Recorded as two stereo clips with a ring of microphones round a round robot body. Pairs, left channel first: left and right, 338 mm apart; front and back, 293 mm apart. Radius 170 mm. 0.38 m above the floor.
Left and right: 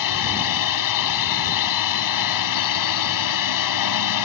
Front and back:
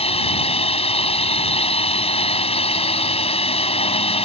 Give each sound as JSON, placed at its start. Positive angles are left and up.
{"t": 0.0, "sound": "a drone", "azimuth_deg": 70}